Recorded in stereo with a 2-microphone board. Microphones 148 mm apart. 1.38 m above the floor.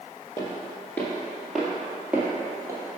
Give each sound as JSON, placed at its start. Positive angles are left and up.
{"t": 0.4, "sound": "footsteps", "side_deg": 25, "distance_m": 1.7}